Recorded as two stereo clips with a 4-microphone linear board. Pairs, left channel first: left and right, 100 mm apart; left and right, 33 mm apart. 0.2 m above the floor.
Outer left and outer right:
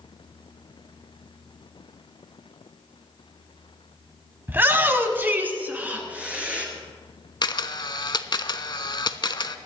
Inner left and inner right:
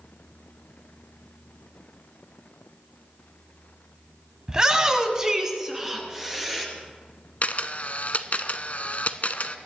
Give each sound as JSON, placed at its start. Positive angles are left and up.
{"t": 4.5, "sound": "a shout", "side_deg": -20, "distance_m": 1.0}
{"t": 7.4, "sound": "a camera shutter", "side_deg": 50, "distance_m": 0.5}